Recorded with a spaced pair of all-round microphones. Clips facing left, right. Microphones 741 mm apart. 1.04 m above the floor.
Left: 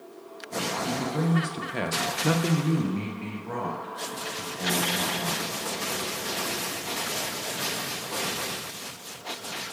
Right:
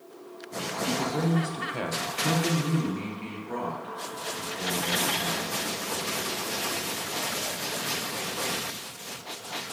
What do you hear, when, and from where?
0.8 s a man speaking: 5° left (ahead or behind), 0.6 m; by 5.5 s 55° left (ahead or behind), 2 m